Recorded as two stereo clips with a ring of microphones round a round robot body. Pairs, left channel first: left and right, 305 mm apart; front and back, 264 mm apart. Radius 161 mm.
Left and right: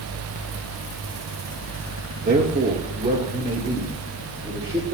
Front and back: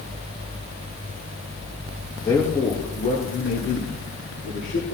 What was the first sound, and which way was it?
A man speaking, 70° right.